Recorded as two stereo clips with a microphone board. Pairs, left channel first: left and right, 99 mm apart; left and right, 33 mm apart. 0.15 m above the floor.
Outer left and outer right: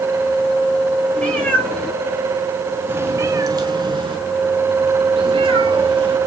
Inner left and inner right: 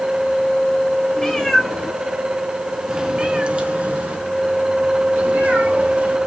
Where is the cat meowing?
15° left (ahead or behind), 1.4 m; by 6.2 s 60° right (ahead or behind), 1.8 m.